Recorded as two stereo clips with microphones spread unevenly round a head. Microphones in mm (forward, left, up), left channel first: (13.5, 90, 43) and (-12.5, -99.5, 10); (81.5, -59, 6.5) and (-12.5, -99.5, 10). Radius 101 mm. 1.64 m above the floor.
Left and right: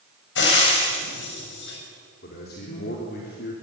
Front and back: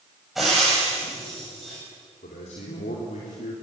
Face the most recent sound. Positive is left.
turn(degrees=40)